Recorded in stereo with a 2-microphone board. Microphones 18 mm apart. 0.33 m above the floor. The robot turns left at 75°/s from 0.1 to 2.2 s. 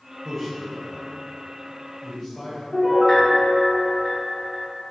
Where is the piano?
20° left (ahead or behind), 1.1 m.